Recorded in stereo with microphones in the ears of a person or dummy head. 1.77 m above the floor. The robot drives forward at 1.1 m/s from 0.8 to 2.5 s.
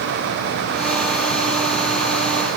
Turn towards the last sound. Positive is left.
No sound to turn to.